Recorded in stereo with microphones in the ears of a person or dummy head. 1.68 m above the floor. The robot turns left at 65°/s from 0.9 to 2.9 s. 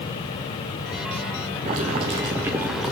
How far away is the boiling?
About 0.5 m.